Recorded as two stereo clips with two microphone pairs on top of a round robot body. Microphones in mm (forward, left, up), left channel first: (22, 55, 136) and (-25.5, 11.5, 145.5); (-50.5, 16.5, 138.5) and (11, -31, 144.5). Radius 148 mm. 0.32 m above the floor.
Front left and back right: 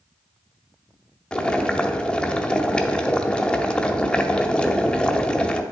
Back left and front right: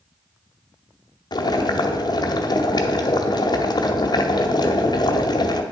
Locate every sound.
1.3 s boiling: 115° left, 0.8 m